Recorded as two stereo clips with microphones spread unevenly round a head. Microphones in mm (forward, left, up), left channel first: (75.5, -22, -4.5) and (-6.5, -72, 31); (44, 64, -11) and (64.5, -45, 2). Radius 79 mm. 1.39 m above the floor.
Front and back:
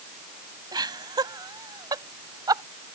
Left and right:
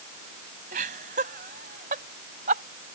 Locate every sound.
0.7 s laughter: 105° right; by 2.6 s 100° right